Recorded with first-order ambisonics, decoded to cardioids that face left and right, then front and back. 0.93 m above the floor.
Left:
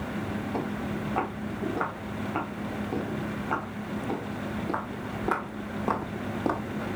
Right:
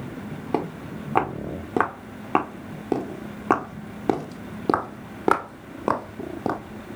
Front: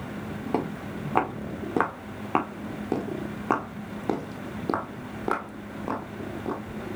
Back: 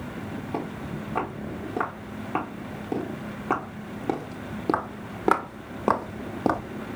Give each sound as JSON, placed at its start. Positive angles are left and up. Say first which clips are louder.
{"t": 0.5, "sound": "footsteps", "louder": "right 8 dB, front 4 dB", "azimuth_deg": -60, "distance_m": 3.5}